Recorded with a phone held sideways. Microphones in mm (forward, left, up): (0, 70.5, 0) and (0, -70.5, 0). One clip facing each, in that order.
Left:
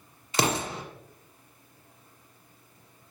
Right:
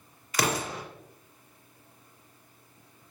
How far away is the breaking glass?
No breaking glass in this recording.